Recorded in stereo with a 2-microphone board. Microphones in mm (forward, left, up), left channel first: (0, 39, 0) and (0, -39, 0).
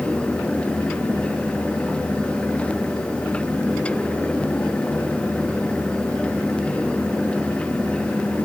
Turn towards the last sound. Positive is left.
No sound to turn to.